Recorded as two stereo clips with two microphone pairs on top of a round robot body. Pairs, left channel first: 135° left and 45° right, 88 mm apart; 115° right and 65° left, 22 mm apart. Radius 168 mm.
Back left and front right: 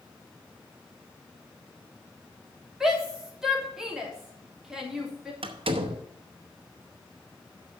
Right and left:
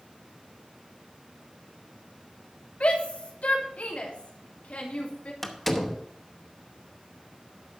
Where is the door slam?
30° right, 1.1 m.